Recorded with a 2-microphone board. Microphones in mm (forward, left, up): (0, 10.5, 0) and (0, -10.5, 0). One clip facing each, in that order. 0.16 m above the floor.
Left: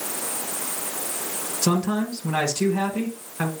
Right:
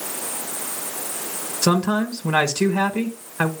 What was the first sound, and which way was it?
A man speaking, 35° right (ahead or behind).